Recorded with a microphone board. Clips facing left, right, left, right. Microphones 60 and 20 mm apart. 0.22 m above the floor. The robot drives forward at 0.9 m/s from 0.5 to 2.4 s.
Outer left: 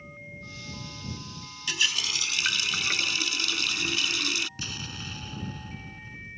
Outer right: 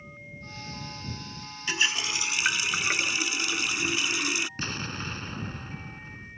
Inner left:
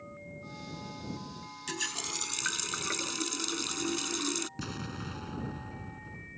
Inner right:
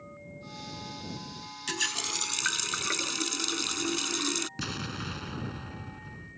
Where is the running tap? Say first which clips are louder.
Outer right 2 dB, inner right 5 dB; 30° right (ahead or behind); by 4.5 s 20° right (ahead or behind).